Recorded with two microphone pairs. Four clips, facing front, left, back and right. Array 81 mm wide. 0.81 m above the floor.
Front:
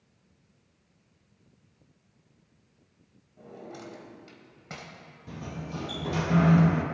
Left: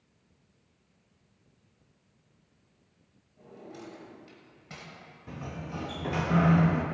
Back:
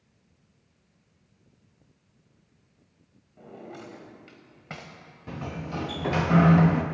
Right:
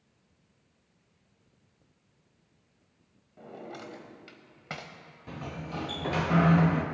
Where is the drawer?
110° right, 1.3 m.